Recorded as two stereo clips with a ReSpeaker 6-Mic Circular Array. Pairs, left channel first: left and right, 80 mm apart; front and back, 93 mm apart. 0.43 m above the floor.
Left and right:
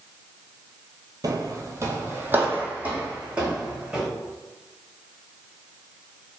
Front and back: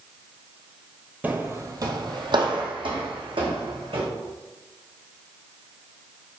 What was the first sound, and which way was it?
Footsteps, 110° right.